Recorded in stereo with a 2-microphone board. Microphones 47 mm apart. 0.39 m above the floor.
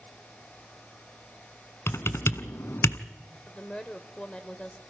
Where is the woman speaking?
20° left (ahead or behind), 1.5 m.